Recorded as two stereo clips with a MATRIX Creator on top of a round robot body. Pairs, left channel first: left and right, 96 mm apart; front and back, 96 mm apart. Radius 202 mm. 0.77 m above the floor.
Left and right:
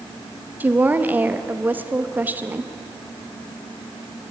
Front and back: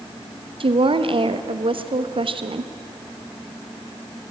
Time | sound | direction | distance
0.6 | a woman speaking | 160° right | 1.2 m